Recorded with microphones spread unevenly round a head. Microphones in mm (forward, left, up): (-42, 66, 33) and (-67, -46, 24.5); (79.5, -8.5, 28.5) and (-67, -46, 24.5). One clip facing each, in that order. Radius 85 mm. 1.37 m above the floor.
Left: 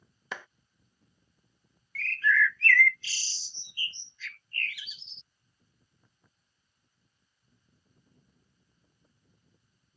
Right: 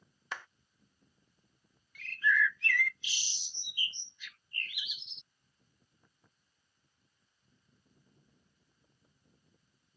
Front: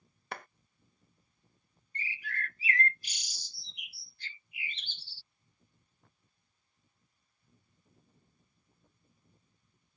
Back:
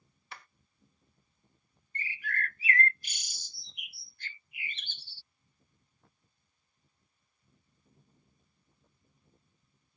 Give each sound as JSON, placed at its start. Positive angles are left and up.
{"t": 0.3, "sound": "a clap", "azimuth_deg": 65}
{"t": 1.9, "sound": "a bird", "azimuth_deg": -175}